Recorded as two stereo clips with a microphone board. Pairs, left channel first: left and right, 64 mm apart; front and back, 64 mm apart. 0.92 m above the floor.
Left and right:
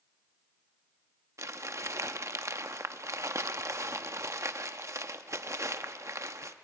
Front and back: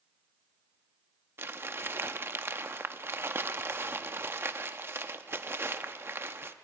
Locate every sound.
1.4 s crumpling: 130° right, 0.7 m